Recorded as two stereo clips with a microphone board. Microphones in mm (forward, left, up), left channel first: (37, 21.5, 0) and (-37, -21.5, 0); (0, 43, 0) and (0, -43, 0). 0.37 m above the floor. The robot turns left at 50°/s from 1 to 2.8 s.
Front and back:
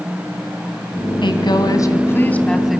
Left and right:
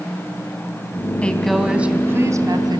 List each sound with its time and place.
1.2 s a woman speaking: 15° left, 2.5 m; by 2.8 s 65° right, 2.5 m